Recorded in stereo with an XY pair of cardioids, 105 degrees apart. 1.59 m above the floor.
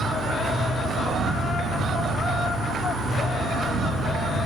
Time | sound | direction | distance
0.0 | an insect | 70° right | 3.5 m